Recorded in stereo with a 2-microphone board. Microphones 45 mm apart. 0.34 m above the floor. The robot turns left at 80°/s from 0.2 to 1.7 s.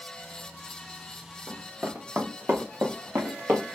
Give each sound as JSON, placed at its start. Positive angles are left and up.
{"t": 1.5, "sound": "running footsteps", "side_deg": -55, "distance_m": 1.7}